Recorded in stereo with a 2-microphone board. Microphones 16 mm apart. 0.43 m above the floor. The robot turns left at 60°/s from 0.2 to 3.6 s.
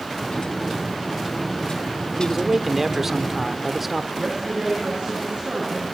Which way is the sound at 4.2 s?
55° right (ahead or behind).